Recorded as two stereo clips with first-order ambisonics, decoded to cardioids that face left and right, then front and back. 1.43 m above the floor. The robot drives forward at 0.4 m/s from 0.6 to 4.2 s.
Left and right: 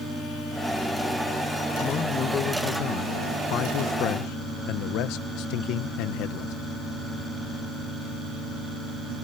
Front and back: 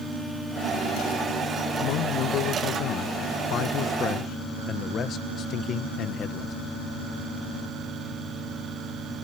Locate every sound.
1.8 s a man speaking: 30° left; by 6.5 s 60° left